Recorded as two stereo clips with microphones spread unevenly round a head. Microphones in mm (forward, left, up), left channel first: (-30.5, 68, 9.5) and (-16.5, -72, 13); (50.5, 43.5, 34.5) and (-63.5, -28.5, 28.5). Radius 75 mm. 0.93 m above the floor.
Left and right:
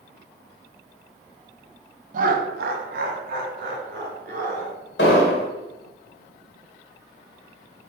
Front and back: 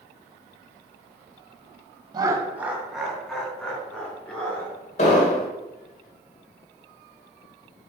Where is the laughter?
95° right, 0.8 m; by 4.7 s 45° right, 3.5 m.